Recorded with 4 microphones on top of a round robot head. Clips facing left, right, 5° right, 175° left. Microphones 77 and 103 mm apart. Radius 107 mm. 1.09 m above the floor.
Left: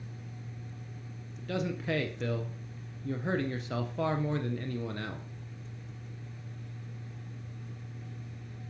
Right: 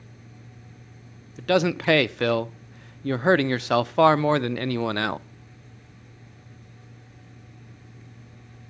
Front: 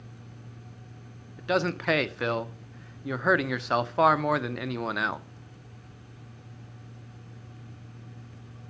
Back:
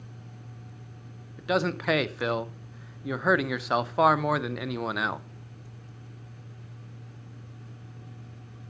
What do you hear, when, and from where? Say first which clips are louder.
1.4 s a man speaking: right 13 dB, even; 95° right, 0.6 m